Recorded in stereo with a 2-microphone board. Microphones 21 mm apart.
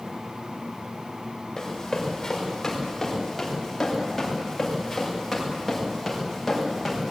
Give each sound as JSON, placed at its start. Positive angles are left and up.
{"t": 1.6, "sound": "running footsteps", "side_deg": 15, "distance_m": 9.0}